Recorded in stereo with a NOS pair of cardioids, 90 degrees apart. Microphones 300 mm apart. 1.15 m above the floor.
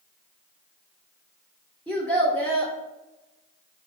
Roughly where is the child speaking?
Ahead.